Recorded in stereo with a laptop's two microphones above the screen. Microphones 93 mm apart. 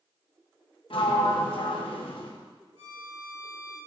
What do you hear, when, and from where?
0.9 s a sliding door: 70° left (ahead or behind), 0.9 m
2.8 s a violin: 80° right, 3.5 m